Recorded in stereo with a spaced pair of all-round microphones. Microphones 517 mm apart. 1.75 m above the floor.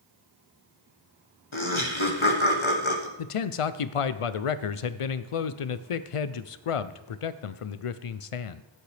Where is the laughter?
60° left (ahead or behind), 1.4 m.